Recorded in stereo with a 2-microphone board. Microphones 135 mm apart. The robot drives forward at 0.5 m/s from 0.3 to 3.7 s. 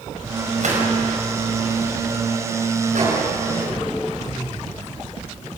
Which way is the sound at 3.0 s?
65° right (ahead or behind).